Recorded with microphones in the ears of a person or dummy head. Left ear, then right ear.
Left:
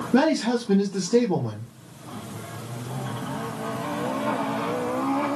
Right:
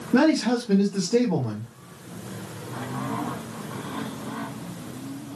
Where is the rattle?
No rattle in this recording.